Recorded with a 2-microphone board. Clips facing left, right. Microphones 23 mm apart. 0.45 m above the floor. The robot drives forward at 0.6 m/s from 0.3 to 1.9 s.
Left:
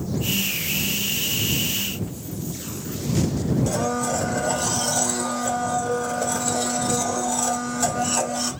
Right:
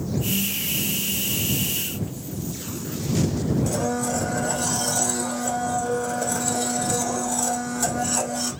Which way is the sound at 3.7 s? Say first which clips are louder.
Left 1 dB; 20° left (ahead or behind).